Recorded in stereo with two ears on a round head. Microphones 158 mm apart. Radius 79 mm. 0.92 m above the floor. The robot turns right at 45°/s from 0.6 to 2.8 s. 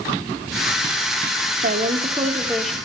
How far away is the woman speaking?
About 1.9 m.